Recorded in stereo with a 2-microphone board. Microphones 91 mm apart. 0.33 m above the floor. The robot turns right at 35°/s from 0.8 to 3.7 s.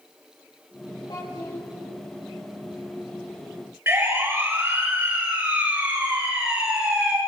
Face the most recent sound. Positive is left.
turn(degrees=-10)  # may be behind; listen again after turning